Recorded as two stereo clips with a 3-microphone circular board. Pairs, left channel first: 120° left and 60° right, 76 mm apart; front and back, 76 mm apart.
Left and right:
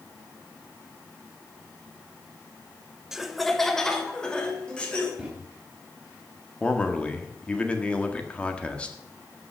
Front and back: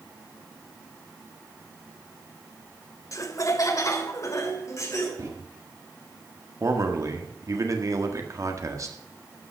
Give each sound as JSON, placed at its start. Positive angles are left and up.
{"t": 3.1, "sound": "laughter", "azimuth_deg": 25, "distance_m": 1.2}
{"t": 5.2, "sound": "a microwave", "azimuth_deg": -140, "distance_m": 3.5}
{"t": 6.6, "sound": "a man speaking", "azimuth_deg": -170, "distance_m": 1.6}